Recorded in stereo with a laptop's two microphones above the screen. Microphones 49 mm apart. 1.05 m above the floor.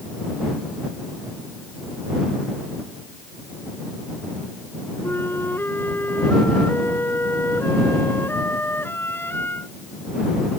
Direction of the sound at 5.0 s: 45° left (ahead or behind).